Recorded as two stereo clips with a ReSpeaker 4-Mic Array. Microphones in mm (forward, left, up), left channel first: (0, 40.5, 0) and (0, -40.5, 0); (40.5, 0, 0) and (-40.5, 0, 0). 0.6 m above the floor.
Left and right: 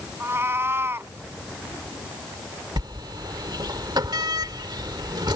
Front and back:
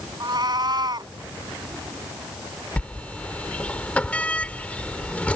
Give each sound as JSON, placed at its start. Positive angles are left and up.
{"t": 0.2, "sound": "a cat meowing", "azimuth_deg": -150}
{"t": 2.8, "sound": "a sliding door", "azimuth_deg": -70}